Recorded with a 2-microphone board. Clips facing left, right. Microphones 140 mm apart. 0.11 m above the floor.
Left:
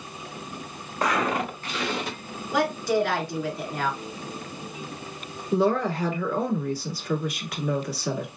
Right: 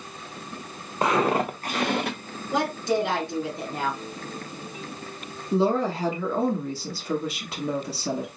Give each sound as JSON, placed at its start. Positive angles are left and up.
{"t": 1.0, "sound": "footsteps", "side_deg": -25, "distance_m": 1.0}
{"t": 2.5, "sound": "a woman speaking", "side_deg": -20, "distance_m": 1.2}
{"t": 5.5, "sound": "a woman speaking", "side_deg": -30, "distance_m": 1.4}